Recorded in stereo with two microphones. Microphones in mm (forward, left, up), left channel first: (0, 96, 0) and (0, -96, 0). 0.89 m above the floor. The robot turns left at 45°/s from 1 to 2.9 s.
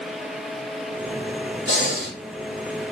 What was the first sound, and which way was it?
Breathing, 75° left (ahead or behind).